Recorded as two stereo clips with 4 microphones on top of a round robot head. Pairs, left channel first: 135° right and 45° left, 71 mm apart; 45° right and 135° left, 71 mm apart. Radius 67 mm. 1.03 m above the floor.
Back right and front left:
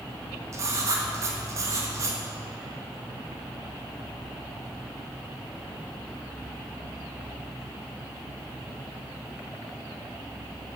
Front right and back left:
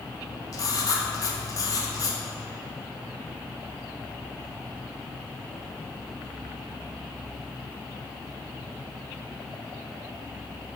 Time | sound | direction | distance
0.5 | writing | 5° right | 1.2 m